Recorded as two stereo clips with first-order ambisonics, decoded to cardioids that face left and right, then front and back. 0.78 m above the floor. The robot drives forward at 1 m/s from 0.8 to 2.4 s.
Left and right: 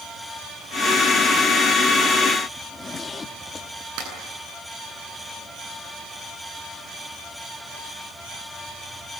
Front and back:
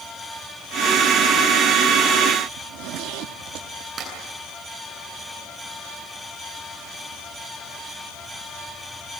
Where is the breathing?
I don't hear breathing.